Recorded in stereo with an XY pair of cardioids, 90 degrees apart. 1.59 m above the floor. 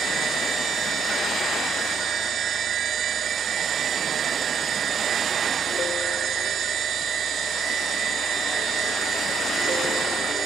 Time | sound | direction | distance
0.0 | a machine running | 65° right | ?